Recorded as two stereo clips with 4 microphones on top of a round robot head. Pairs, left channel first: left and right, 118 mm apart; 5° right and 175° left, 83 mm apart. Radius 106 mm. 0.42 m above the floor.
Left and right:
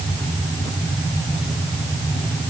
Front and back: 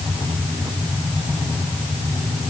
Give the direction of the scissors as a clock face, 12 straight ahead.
I don't hear scissors.